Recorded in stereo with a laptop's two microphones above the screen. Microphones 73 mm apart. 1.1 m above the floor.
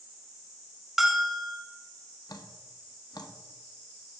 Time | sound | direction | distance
1.0 | a bell | 5° right (ahead or behind) | 1.4 m
2.3 | dripping | 70° left (ahead or behind) | 0.8 m